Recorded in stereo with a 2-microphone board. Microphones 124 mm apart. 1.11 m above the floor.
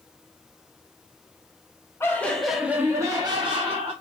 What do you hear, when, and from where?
2.0 s laughter: 20° left (ahead or behind), 0.8 m; by 3.9 s 50° right (ahead or behind), 1.0 m